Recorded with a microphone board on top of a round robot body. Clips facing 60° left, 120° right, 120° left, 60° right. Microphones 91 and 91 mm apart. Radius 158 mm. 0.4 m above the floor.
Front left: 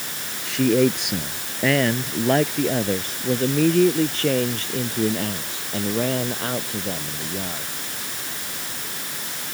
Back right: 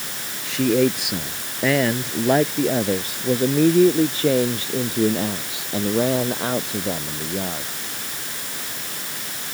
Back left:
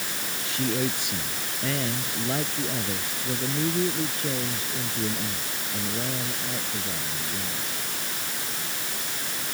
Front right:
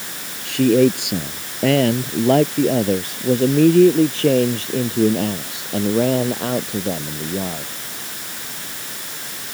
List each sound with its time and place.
0.5 s a man speaking: 30° right; by 7.7 s 45° right